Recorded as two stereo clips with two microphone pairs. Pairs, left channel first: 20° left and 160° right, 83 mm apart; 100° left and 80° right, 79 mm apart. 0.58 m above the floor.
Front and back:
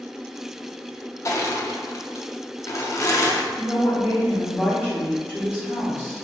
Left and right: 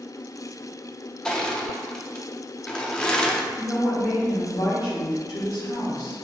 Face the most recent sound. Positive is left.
turn(degrees=115)